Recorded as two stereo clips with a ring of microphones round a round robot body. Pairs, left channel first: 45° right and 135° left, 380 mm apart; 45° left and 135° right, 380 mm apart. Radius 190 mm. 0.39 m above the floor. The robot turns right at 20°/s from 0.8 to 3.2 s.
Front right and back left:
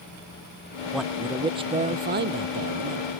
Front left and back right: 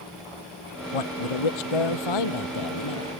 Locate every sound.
0.9 s a man speaking: 45° left; by 3.1 s 90° left